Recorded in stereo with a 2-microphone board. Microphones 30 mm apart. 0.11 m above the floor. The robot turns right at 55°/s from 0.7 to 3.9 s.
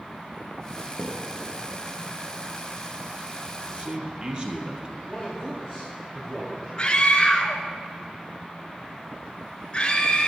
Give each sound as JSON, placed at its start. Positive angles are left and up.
{"t": 1.0, "sound": "a thud", "side_deg": 80, "distance_m": 4.0}
{"t": 3.7, "sound": "a man speaking", "side_deg": -40, "distance_m": 2.5}
{"t": 5.1, "sound": "a man speaking", "side_deg": 0, "distance_m": 3.0}
{"t": 6.8, "sound": "a scream", "side_deg": 30, "distance_m": 1.2}